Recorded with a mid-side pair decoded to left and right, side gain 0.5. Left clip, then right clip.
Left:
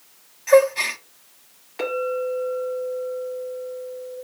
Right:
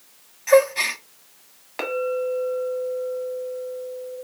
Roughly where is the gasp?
Ahead.